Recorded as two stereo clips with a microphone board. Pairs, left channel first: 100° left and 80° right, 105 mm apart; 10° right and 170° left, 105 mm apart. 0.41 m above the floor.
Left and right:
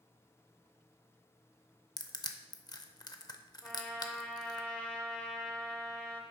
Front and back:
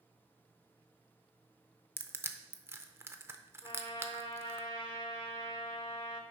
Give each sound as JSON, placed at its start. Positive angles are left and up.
{"t": 2.0, "sound": "crushing", "azimuth_deg": 115, "distance_m": 0.5}
{"t": 3.6, "sound": "a trumpet", "azimuth_deg": 20, "distance_m": 1.0}